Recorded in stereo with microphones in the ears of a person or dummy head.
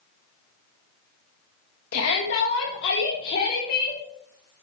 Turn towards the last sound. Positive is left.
turn(degrees=45)  # may be behind; listen again after turning